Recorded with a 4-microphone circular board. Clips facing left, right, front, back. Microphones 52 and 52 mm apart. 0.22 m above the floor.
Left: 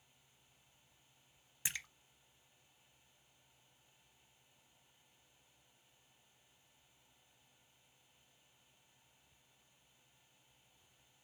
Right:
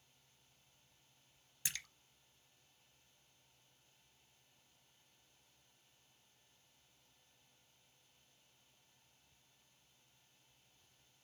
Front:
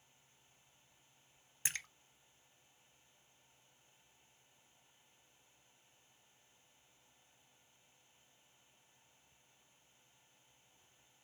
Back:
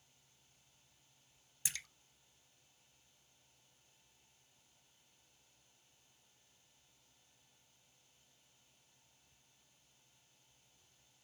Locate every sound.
1.6 s a splash: 30° left, 0.5 m